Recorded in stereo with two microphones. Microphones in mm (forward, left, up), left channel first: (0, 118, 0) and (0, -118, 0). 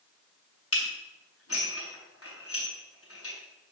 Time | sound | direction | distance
0.7 | dishes clattering | 75° left (ahead or behind) | 4.5 m